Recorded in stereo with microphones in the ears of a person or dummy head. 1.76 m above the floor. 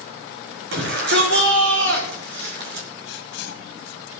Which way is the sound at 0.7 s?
65° right (ahead or behind).